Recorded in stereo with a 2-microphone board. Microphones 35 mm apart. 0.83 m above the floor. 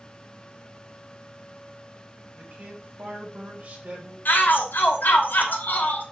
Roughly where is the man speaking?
Right.